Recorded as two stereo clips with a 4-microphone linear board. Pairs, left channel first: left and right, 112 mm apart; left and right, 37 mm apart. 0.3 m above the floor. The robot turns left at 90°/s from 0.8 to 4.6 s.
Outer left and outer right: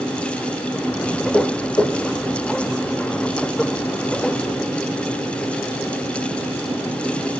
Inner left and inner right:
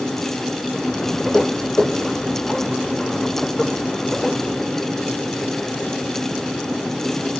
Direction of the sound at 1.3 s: 30° left (ahead or behind).